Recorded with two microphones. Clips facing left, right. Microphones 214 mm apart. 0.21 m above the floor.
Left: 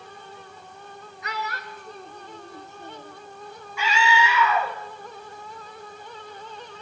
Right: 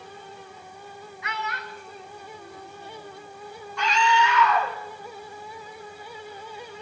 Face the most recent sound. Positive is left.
turn(degrees=5)  # may be behind; listen again after turning